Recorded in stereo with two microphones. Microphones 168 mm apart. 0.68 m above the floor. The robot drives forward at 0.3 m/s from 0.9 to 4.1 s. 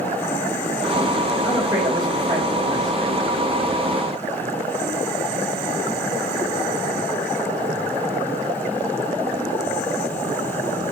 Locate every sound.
1.4 s a man speaking: 25° right (ahead or behind), 3 m; by 3.1 s 20° right (ahead or behind), 3.5 m